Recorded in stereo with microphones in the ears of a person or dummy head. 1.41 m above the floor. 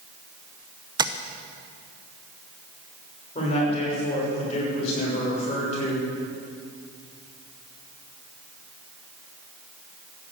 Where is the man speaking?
35° left (ahead or behind), 6 m.